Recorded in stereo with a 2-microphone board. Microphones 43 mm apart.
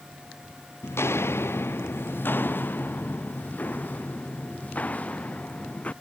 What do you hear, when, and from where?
0.8 s footsteps: 80° left; by 5.9 s 35° left (ahead or behind)